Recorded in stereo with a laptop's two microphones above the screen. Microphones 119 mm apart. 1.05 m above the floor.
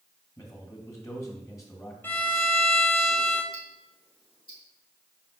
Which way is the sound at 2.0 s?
15° left (ahead or behind).